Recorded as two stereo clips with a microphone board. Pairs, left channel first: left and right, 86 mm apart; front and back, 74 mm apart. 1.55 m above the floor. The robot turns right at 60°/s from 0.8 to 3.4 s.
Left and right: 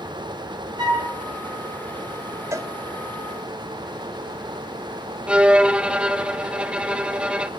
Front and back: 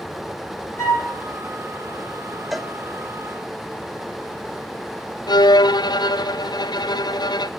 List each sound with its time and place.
0.8 s a flute: 50° right, 5.5 m; by 1.1 s 35° right, 5.5 m
2.5 s a cowbell: 90° right, 1.1 m; by 2.7 s 75° right, 1.1 m
5.3 s a violin: 10° right, 0.6 m